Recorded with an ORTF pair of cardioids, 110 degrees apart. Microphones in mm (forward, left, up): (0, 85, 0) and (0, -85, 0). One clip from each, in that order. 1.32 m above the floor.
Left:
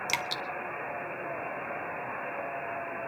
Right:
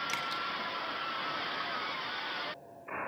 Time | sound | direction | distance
0.1 | dripping | 45° left | 1.6 m